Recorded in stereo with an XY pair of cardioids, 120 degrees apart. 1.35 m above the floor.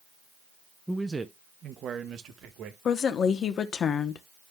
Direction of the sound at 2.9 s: 50° left.